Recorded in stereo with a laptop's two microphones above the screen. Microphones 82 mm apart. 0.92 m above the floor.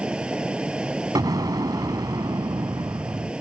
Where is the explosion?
50° right (ahead or behind).